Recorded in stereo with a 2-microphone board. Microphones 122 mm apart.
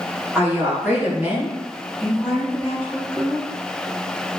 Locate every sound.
0.3 s a woman speaking: 15° right (ahead or behind), 1.1 m; by 3.5 s 10° left (ahead or behind), 1.0 m